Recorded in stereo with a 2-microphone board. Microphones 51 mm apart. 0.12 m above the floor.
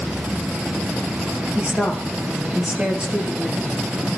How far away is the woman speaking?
About 3 m.